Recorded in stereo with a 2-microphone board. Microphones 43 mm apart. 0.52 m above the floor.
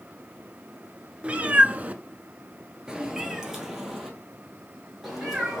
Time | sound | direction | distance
1.2 | a cat meowing | 30° right (ahead or behind) | 0.7 m